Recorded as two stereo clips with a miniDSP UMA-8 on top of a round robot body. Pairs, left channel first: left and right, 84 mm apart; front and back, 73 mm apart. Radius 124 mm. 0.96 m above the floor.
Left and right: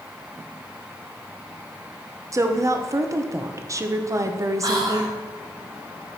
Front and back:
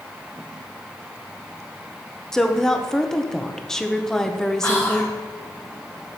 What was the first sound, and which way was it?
A woman speaking, 80° right.